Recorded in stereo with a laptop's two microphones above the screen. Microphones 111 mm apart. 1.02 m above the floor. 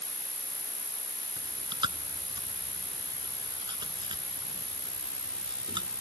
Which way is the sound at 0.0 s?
25° right (ahead or behind).